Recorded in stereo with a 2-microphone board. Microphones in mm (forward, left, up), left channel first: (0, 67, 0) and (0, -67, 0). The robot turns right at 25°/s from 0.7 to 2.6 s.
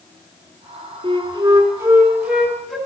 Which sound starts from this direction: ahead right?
A flute, at 1.0 s.